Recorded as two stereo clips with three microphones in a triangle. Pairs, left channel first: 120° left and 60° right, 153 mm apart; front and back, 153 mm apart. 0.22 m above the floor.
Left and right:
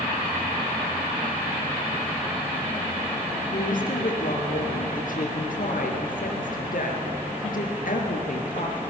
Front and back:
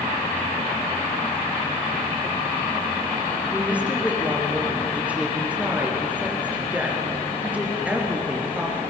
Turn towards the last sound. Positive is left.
turn(degrees=100)